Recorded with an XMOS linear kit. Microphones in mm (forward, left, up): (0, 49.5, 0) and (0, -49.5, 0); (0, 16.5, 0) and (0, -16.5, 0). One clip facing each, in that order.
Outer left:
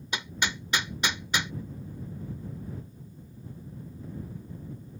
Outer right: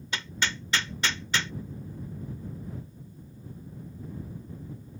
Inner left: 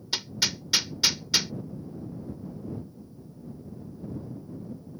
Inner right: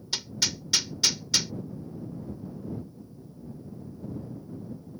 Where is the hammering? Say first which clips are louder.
Even, inner left 1 dB; 15° left (ahead or behind).